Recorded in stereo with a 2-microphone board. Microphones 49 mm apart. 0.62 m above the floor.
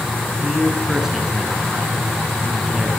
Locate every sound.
0.4 s a man speaking: 10° right (ahead or behind), 8 m